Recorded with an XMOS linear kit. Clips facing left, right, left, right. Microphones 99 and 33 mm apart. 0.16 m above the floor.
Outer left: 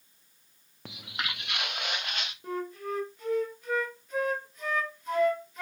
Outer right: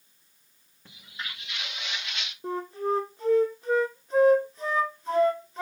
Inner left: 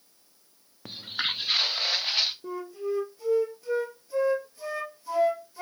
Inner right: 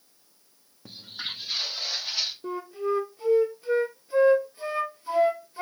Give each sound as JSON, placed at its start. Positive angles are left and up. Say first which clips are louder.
{"t": 0.8, "sound": "footsteps", "louder": "outer left 4 dB, inner left 6 dB", "side_deg": 80, "distance_m": 0.8}
{"t": 2.4, "sound": "a flute", "louder": "outer right 6 dB, inner right 3 dB", "side_deg": -30, "distance_m": 1.5}